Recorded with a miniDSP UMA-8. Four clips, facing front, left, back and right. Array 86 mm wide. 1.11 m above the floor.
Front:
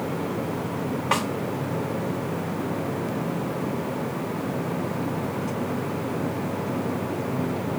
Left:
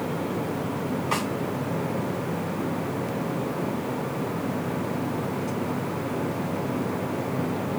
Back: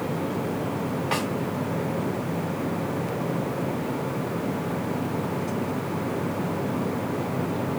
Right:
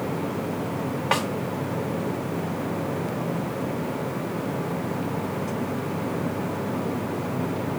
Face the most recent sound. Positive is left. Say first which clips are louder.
# right 5 dB, front 4 dB
turn(degrees=-85)